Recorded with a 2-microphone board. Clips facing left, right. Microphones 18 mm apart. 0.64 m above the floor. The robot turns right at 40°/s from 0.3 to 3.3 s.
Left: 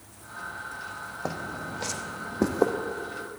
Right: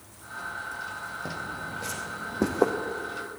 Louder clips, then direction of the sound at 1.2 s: Left 1 dB; 60° left (ahead or behind).